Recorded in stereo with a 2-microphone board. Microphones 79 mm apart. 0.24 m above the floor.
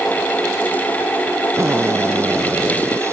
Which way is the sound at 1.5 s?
35° right (ahead or behind).